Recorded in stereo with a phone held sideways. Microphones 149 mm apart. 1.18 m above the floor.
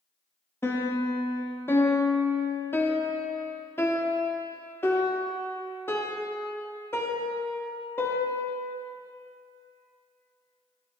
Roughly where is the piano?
Centre.